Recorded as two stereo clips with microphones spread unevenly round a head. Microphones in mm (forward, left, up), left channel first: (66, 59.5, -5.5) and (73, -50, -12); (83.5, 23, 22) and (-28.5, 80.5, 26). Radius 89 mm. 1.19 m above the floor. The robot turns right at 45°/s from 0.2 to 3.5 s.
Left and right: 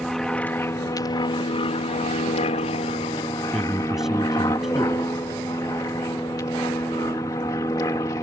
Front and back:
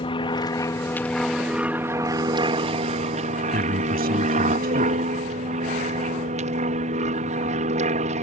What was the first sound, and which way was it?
An aircraft, 10° left.